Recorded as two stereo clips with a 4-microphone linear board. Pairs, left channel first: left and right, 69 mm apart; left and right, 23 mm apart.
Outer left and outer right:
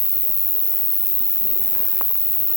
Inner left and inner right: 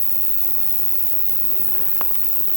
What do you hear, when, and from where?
0.0 s an insect: 40° left (ahead or behind), 0.9 m